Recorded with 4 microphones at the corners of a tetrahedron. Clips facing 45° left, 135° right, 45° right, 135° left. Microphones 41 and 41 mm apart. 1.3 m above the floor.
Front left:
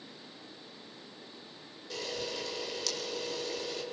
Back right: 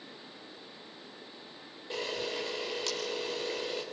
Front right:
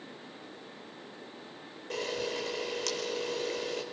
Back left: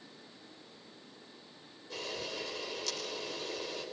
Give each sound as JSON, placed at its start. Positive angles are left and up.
{"t": 1.9, "sound": "a camera shutter", "azimuth_deg": -70, "distance_m": 4.5}